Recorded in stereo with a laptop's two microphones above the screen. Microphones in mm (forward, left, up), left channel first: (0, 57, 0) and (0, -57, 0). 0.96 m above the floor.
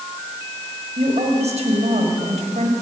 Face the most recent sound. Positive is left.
turn(degrees=-75)  # may be behind; listen again after turning